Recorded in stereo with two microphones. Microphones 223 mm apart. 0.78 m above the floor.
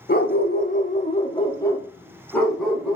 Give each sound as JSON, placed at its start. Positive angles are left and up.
{"t": 0.1, "sound": "a dog barking", "side_deg": 45, "distance_m": 0.7}